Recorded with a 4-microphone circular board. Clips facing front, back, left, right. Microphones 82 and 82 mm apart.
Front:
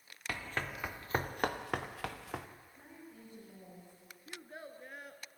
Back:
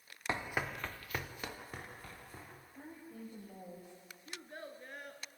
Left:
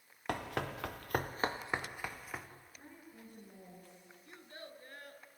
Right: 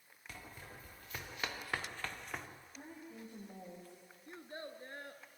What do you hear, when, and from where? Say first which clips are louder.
0.3 s running footsteps: back 2 dB, left 15 dB; 115° left, 1.3 m; by 2.5 s 5° left, 2 m
2.7 s a woman speaking: back 3 dB, right 4 dB; 125° right, 7 m
4.3 s a child speaking: even, right 4 dB; 85° right, 1.2 m